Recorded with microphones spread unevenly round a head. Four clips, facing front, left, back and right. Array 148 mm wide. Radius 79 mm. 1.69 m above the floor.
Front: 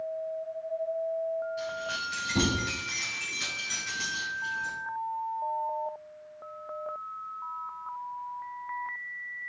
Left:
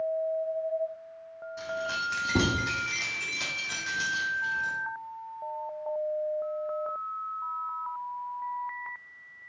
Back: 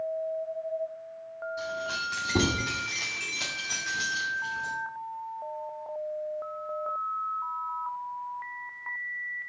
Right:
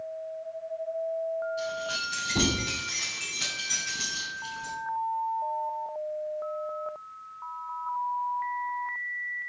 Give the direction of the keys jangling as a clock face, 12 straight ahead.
8 o'clock.